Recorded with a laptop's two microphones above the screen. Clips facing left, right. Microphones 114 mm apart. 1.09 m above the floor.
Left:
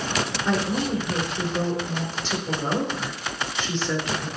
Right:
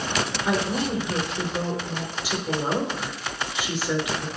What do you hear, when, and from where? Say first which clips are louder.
0.5 s a woman speaking: left 1 dB; 15° right (ahead or behind), 4 m